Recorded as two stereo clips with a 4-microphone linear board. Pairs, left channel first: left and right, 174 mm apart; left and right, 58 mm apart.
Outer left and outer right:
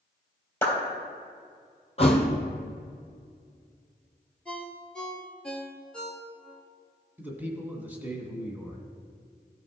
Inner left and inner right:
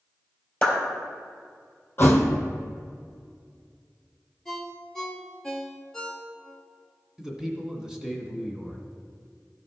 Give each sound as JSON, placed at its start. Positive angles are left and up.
{"t": 0.6, "sound": "a clap", "side_deg": 15, "distance_m": 3.0}
{"t": 2.0, "sound": "a thud", "side_deg": 35, "distance_m": 1.3}
{"t": 4.5, "sound": "a ringtone", "side_deg": 5, "distance_m": 1.3}
{"t": 7.2, "sound": "a man speaking", "side_deg": -10, "distance_m": 1.8}